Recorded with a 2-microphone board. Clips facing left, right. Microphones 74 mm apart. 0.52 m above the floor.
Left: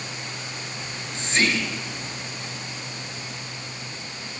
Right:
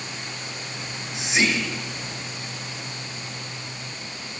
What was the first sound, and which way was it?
Whispering, 5° right (ahead or behind).